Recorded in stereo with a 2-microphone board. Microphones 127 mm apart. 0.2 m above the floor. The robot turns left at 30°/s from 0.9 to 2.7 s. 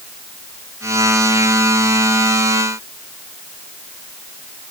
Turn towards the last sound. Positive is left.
No sound to turn to.